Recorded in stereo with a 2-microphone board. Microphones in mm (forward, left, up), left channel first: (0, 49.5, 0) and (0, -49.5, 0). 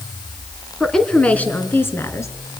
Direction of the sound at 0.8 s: 5° left (ahead or behind).